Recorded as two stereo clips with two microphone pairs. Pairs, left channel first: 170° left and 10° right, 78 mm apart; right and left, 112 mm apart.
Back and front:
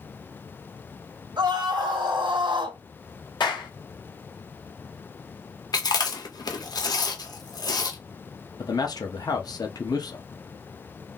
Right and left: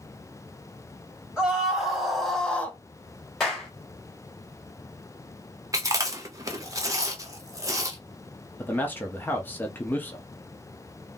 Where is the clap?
175° right, 1.7 m.